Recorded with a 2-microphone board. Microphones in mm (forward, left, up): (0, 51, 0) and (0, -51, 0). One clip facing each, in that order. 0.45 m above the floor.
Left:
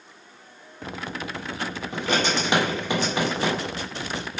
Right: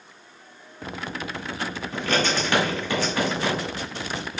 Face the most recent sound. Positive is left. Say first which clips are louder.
# even
turn(degrees=20)  # may be behind; listen again after turning